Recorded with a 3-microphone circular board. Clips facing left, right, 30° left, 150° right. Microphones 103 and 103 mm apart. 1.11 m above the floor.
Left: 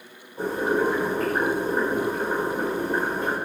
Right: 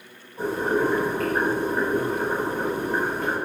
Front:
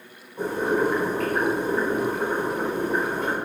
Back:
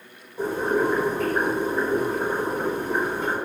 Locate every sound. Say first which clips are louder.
0.4 s boiling: even, even; 20° left, 1.8 m